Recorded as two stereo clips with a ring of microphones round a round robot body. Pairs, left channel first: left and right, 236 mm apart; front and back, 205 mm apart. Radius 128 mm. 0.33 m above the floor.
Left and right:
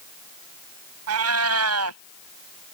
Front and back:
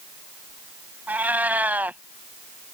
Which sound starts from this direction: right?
A cat meowing, at 1.1 s.